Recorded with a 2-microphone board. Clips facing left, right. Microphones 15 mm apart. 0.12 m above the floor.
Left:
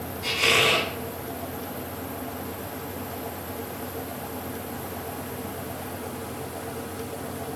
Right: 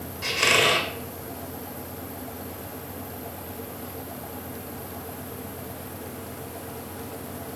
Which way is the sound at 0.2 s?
50° right (ahead or behind).